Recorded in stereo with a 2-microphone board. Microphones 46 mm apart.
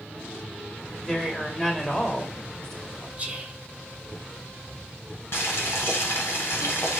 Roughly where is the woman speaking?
Centre.